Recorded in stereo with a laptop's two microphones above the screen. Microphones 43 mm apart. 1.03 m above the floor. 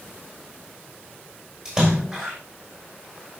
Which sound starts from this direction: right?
A splash, at 1.6 s.